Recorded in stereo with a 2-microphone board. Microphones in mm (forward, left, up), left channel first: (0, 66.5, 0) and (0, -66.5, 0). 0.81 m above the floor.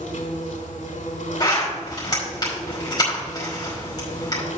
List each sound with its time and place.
0.0 s an insect: 75° left (ahead or behind), 3.5 m
1.4 s a zipper: 30° left (ahead or behind), 5 m